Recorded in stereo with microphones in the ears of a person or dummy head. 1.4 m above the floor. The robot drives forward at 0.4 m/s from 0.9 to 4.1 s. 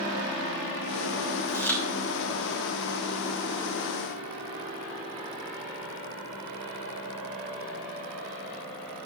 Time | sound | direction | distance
1.5 | chewing | 5° left (ahead or behind) | 3 m